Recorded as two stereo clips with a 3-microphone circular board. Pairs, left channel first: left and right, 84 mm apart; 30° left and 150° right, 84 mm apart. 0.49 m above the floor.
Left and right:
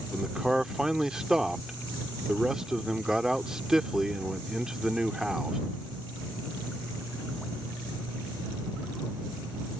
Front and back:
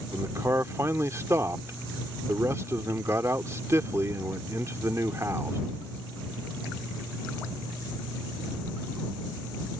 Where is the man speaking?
170° right.